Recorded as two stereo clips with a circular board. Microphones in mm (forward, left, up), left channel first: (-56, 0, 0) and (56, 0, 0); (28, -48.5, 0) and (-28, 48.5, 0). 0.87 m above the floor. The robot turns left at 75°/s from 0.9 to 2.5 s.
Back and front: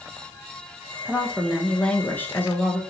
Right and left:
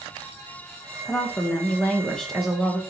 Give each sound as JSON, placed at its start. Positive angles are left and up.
{"t": 1.1, "sound": "a woman speaking", "azimuth_deg": -50, "distance_m": 0.8}